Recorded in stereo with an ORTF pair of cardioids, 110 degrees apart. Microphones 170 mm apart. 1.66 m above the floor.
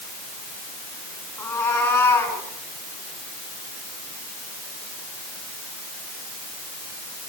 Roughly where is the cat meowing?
Ahead.